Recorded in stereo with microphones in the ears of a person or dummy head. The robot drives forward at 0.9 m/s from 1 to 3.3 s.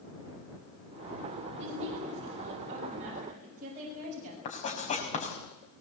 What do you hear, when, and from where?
1.6 s a woman speaking: 35° right (ahead or behind), 8.5 m; by 4.3 s 40° right (ahead or behind), 7 m
4.5 s writing: 40° left (ahead or behind), 5 m